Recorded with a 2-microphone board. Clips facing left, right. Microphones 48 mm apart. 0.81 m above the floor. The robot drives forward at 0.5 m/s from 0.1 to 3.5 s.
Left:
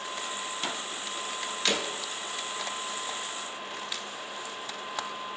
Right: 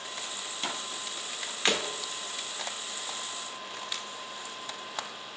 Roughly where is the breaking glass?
Right.